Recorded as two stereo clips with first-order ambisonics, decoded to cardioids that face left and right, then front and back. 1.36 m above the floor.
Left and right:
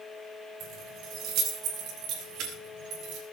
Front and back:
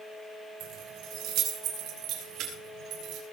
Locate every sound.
0.6 s keys jangling: 145° right, 4.5 m; by 3.2 s 135° right, 6.5 m